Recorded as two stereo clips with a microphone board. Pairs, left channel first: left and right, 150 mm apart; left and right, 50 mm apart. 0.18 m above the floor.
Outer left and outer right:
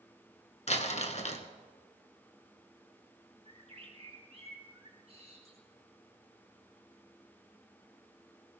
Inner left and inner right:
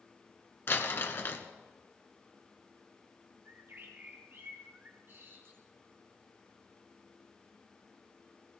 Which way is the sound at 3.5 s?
45° right (ahead or behind).